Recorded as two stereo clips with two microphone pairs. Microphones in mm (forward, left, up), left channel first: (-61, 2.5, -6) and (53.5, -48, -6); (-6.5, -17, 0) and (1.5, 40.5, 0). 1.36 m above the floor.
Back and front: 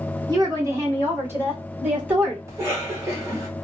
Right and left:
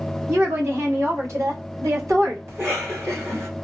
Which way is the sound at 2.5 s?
40° left.